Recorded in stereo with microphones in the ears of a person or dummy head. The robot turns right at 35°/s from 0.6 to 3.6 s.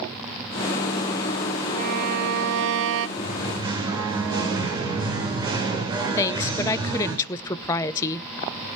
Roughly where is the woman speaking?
Centre.